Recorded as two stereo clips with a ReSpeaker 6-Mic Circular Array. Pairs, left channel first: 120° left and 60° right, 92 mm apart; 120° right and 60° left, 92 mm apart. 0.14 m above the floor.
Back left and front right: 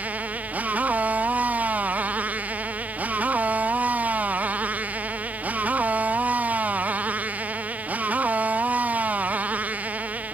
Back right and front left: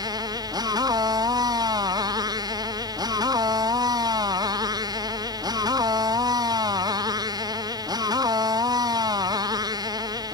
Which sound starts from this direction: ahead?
A motorcycle, at 0.0 s.